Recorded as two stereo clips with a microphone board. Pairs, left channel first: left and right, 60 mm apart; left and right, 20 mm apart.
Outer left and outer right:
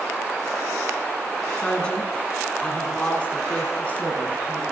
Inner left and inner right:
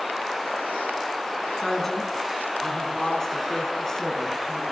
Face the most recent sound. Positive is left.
turn(degrees=25)  # may be behind; listen again after turning